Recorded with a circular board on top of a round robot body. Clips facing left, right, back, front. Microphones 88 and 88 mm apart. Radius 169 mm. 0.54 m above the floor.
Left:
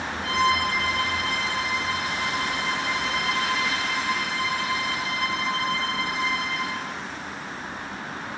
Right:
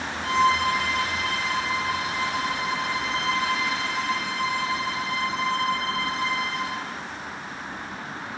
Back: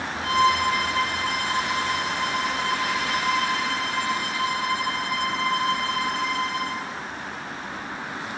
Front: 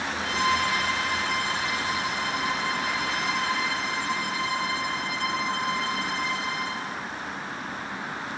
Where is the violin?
145° right, 2 m.